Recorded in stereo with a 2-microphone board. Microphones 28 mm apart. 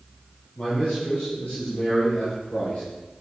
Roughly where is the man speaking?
Left.